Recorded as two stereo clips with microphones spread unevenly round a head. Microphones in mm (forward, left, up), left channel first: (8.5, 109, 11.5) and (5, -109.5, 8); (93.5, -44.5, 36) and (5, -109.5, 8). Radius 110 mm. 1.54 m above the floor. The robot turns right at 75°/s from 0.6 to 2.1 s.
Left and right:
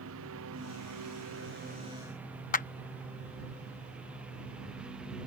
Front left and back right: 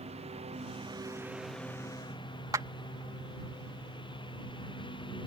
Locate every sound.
0.0 s a lawn mower: 120° right; by 5.3 s 5° right
2.5 s a clap: 135° left